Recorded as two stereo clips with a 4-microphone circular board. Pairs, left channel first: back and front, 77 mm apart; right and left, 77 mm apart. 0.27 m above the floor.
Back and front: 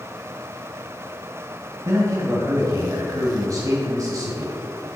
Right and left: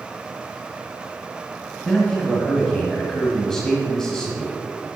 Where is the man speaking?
10° right, 1.3 m.